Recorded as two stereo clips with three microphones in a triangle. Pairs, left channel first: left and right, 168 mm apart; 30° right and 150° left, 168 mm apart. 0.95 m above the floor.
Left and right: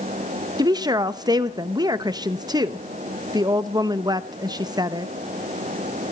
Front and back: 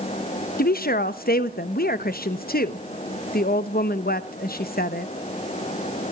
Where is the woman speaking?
25° right, 0.8 m.